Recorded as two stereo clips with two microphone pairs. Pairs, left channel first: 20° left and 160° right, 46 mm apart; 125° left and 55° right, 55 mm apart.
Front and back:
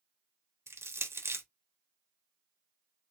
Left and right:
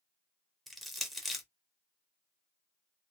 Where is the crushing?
150° right, 0.6 m.